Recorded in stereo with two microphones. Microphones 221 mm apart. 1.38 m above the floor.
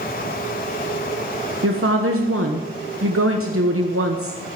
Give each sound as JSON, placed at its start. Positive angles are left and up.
{"t": 1.6, "sound": "a woman speaking", "side_deg": -80, "distance_m": 1.1}